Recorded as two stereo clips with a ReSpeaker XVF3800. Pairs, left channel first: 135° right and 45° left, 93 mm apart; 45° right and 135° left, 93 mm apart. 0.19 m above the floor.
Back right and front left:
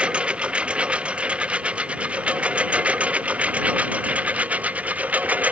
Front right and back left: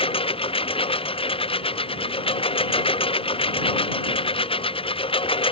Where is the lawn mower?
35° right; by 5.5 s 30° right.